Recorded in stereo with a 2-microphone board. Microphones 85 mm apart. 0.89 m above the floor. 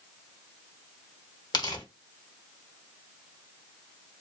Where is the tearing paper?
55° left (ahead or behind), 1.0 m.